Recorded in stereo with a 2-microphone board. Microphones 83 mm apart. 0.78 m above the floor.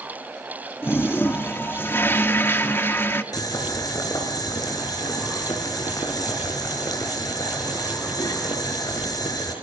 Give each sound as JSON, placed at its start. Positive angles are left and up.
{"t": 0.8, "sound": "a toilet flushing", "side_deg": 25, "distance_m": 1.3}
{"t": 3.3, "sound": "boiling", "side_deg": 45, "distance_m": 5.0}